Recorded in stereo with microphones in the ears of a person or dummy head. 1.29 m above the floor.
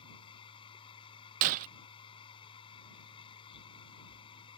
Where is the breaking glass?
45° right (ahead or behind).